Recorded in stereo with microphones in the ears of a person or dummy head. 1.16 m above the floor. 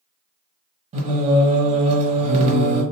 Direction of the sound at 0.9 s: 35° right (ahead or behind).